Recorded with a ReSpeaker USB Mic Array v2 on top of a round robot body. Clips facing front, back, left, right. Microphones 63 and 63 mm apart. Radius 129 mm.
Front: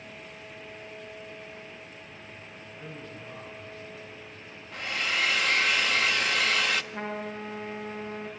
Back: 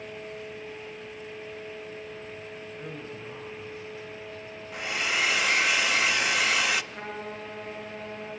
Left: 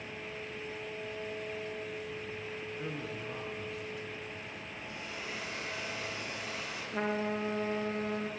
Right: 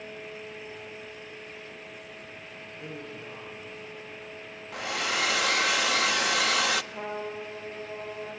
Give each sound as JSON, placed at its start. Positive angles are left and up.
{"t": 2.8, "sound": "a man speaking", "azimuth_deg": 115, "distance_m": 10.0}
{"t": 4.7, "sound": "a hair dryer", "azimuth_deg": -100, "distance_m": 0.9}
{"t": 6.9, "sound": "a trumpet", "azimuth_deg": 65, "distance_m": 3.5}